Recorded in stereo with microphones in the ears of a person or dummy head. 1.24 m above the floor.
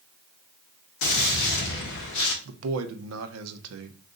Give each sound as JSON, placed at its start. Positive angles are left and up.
{"t": 1.0, "sound": "a gunshot", "side_deg": 65, "distance_m": 1.2}
{"t": 2.5, "sound": "a man speaking", "side_deg": -80, "distance_m": 0.6}